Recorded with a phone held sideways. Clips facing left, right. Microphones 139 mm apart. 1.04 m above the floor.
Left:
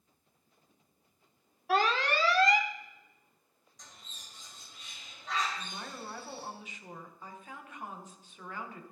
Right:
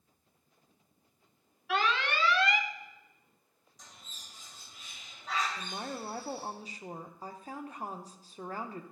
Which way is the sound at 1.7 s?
40° left (ahead or behind).